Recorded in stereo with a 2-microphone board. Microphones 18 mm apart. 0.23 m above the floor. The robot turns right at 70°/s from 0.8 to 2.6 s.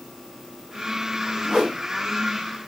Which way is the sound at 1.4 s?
45° right (ahead or behind).